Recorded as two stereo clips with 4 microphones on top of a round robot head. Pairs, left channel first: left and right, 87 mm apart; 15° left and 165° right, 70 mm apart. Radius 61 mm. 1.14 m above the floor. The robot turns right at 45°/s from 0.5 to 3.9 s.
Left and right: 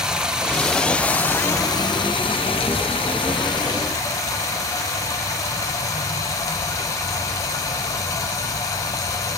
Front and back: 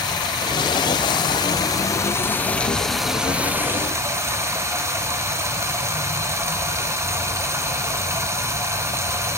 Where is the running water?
10° right, 0.9 m; by 9.4 s 145° left, 0.9 m.